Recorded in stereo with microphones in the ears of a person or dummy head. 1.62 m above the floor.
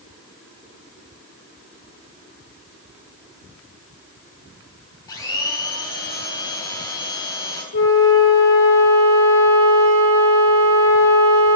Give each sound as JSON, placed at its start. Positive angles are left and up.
{"t": 5.1, "sound": "a blender", "side_deg": 15, "distance_m": 3.0}
{"t": 7.7, "sound": "a flute", "side_deg": 70, "distance_m": 4.5}